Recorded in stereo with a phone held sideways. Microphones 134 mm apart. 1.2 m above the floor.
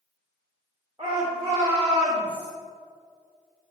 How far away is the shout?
About 1.4 m.